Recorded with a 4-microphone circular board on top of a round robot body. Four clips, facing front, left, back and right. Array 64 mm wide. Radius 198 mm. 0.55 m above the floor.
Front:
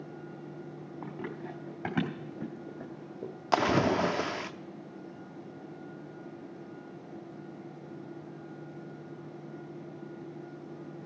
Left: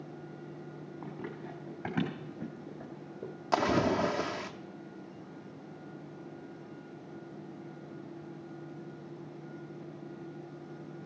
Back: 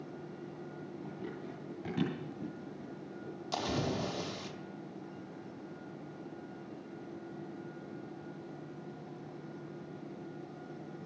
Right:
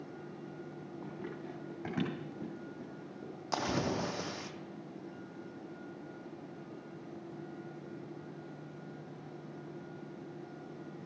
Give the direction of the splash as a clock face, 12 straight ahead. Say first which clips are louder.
Left 7 dB, front 10 dB; 11 o'clock.